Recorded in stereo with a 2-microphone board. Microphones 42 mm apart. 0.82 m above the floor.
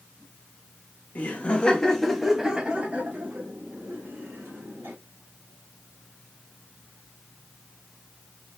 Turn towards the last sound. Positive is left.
turn(degrees=-70)  # may be behind; listen again after turning